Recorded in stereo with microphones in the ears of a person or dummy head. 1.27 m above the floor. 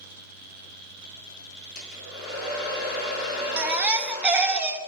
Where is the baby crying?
10° right (ahead or behind), 0.6 m.